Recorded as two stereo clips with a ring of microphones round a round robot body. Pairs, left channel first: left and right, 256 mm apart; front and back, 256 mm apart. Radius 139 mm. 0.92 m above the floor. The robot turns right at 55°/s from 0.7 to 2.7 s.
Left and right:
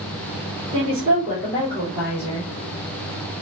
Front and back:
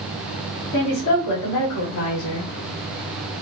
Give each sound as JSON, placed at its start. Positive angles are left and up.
{"t": 0.7, "sound": "a woman speaking", "azimuth_deg": -35, "distance_m": 2.5}